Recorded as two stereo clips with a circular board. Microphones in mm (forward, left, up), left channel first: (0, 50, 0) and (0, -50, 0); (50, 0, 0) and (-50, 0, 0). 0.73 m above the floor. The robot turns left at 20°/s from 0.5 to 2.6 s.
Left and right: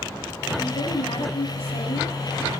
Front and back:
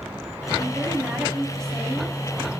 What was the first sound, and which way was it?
A woman speaking, 105° left.